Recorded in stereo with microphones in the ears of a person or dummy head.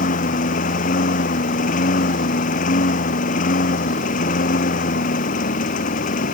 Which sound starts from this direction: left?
A lawn mower, at 0.0 s.